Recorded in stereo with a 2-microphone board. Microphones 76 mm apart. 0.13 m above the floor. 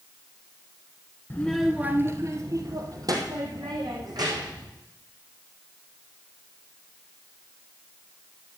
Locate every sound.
1.3 s a child speaking: 25° left (ahead or behind), 0.9 m; by 4.7 s 65° right (ahead or behind), 5 m